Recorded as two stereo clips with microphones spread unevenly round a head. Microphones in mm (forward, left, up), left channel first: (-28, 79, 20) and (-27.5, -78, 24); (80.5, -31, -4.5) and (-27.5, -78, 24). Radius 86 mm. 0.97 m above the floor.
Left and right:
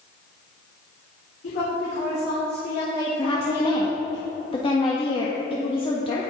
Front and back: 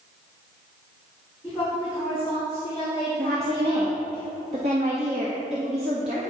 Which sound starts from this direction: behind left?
A woman speaking, at 3.2 s.